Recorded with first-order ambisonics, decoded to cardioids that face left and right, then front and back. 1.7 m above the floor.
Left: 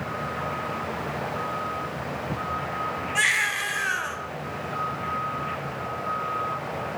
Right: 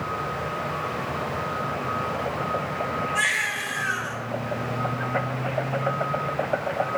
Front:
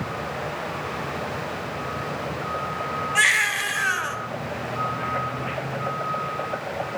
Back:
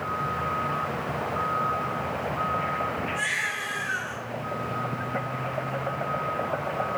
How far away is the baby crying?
About 1.0 m.